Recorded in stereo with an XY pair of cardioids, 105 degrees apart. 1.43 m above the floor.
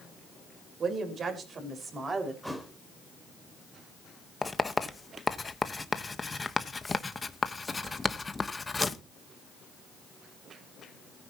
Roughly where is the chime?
I don't hear a chime.